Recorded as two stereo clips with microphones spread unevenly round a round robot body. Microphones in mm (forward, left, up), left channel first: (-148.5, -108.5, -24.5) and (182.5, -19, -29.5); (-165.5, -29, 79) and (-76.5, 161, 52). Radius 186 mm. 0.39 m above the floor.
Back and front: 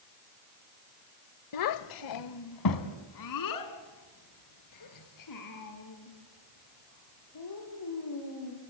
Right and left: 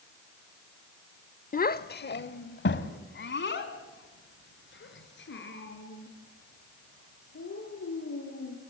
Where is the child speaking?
160° right, 1.0 m; by 8.5 s 140° right, 9 m.